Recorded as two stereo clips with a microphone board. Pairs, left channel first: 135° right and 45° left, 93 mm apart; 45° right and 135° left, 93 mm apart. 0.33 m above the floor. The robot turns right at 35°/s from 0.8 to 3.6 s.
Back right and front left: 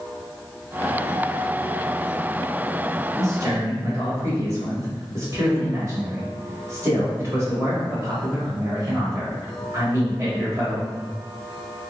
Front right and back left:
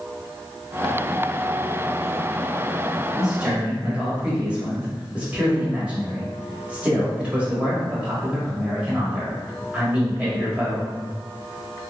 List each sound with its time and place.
3.2 s a man speaking: 55° left, 1.6 m; by 10.9 s 70° left, 1.6 m